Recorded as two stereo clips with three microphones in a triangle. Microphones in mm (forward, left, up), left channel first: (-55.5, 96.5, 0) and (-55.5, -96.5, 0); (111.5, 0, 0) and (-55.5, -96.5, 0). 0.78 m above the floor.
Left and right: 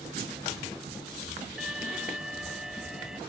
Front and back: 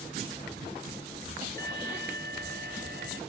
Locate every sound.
1.6 s an alarm: 175° right